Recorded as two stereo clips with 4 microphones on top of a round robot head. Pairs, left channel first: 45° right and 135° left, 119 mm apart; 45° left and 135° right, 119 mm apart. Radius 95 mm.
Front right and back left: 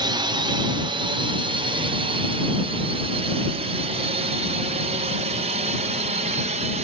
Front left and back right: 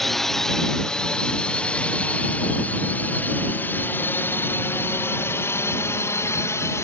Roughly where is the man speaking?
No man speaking in this recording.